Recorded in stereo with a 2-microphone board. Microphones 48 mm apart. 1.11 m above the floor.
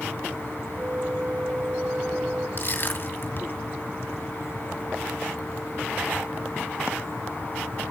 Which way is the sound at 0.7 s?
20° right (ahead or behind).